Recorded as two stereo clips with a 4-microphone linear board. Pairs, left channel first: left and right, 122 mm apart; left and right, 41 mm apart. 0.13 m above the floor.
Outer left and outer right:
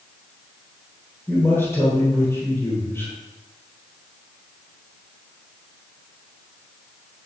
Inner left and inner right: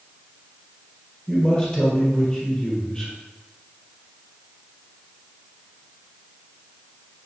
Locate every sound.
1.3 s a man speaking: 20° left (ahead or behind), 4 m